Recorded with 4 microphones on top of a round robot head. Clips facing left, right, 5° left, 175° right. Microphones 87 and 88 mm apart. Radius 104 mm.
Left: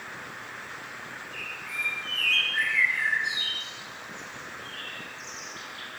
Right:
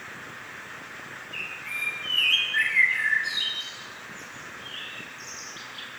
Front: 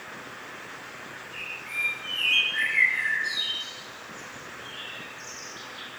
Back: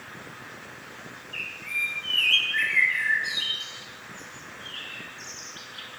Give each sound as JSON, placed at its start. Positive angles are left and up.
{"t": 1.3, "sound": "a bird", "azimuth_deg": -130, "distance_m": 4.0}